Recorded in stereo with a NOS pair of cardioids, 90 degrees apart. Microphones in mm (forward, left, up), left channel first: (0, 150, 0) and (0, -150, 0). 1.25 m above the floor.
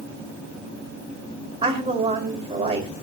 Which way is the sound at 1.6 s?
20° right.